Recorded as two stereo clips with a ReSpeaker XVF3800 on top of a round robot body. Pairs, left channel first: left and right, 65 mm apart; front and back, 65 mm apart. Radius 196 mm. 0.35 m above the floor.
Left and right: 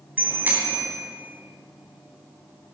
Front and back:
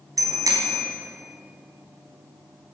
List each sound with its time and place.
0.2 s a bicycle bell: 155° right, 3 m